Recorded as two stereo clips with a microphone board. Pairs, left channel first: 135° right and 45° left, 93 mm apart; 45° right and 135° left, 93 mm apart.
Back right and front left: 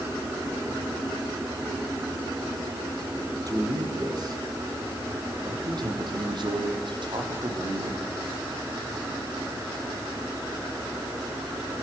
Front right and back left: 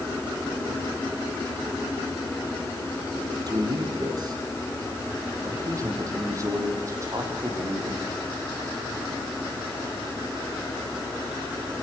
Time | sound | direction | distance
3.5 | a man speaking | 90° left | 5.5 m